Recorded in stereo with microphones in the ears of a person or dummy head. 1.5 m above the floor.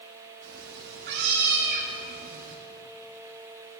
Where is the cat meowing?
70° right (ahead or behind), 2 m; by 2.6 s 40° right (ahead or behind), 1.7 m.